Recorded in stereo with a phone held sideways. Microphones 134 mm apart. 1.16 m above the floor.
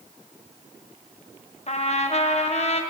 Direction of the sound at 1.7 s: 50° left (ahead or behind).